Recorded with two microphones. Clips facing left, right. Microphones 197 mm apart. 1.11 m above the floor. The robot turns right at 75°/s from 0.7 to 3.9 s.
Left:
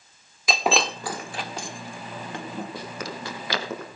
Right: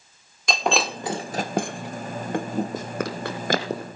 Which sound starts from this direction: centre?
Breaking glass, at 0.5 s.